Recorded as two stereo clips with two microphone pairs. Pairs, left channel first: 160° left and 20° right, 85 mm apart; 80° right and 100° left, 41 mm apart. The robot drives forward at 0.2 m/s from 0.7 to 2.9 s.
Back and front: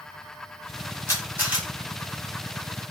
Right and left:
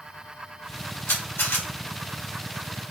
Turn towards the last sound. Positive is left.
turn(degrees=-95)